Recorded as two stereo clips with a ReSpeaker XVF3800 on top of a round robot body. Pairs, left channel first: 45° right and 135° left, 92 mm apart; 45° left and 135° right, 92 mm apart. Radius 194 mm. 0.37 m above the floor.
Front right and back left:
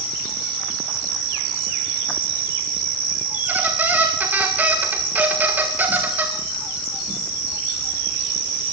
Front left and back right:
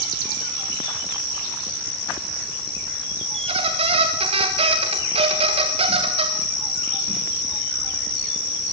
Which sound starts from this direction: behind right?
A squeak, at 3.3 s.